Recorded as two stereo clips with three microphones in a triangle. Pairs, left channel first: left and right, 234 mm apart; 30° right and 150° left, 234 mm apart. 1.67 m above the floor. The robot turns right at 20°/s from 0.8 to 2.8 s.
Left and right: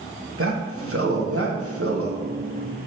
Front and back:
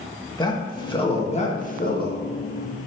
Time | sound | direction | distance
0.4 | a man speaking | 100° right | 1.9 m